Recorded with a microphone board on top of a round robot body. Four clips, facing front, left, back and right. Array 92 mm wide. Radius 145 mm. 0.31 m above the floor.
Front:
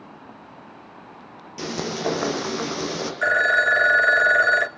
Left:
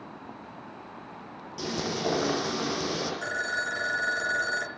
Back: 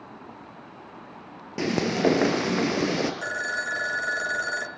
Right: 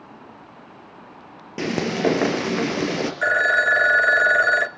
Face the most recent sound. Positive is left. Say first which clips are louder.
# right 16 dB, front 11 dB
turn(degrees=-45)